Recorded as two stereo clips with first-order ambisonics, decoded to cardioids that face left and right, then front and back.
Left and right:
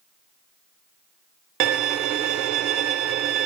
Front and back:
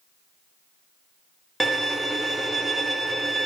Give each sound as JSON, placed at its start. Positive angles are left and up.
{"t": 1.6, "sound": "a violin", "azimuth_deg": -95, "distance_m": 0.8}